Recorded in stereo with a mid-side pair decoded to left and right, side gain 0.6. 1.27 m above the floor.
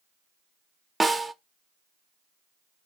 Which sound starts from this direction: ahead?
A snare drum, at 1.0 s.